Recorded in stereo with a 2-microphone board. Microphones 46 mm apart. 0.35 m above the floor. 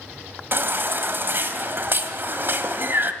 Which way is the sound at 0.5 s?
45° right (ahead or behind).